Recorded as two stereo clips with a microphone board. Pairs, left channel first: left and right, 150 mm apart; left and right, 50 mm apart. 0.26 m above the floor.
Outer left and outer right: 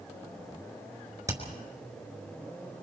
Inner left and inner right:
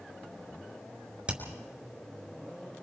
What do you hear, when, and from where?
1.3 s hammering: 20° right (ahead or behind), 4 m